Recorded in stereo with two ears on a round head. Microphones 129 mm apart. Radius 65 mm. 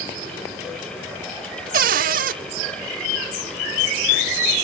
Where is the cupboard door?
60° right (ahead or behind), 0.8 m.